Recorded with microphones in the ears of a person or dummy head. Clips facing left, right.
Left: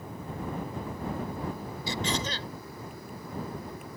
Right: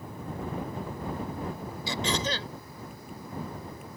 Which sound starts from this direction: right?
Throat clearing, at 1.9 s.